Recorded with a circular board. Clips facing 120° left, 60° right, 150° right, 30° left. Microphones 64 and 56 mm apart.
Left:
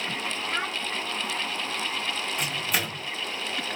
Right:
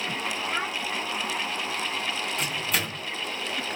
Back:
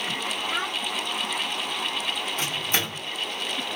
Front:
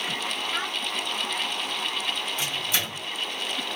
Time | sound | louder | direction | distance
0.5 | a child speaking | left 1 dB, back 3 dB | 155° right | 0.6 m
2.4 | a microwave | even, back 1 dB | 155° right | 0.9 m